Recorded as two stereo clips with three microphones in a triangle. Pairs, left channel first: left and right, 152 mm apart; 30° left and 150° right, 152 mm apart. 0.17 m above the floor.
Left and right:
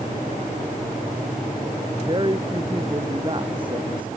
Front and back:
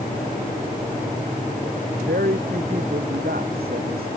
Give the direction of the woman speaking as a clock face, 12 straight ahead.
5 o'clock.